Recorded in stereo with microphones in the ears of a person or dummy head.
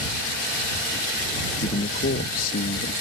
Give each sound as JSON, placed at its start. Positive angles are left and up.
{"t": 1.6, "sound": "a man speaking", "side_deg": 40}